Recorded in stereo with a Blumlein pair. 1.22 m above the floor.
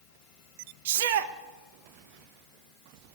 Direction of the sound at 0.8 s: 55° right.